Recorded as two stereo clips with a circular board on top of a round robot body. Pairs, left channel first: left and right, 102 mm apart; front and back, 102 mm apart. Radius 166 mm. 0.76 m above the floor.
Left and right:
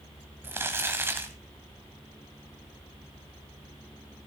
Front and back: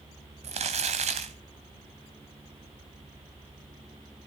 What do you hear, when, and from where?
0.4 s crumpling: 160° right, 1.0 m